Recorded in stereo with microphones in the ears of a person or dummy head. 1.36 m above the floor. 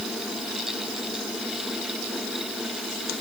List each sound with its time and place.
Only background noise.